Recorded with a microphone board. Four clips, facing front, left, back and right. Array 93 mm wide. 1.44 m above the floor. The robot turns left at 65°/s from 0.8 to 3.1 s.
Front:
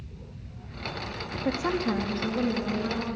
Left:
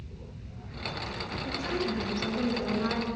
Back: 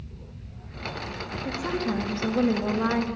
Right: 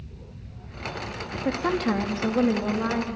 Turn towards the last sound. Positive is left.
turn(degrees=-165)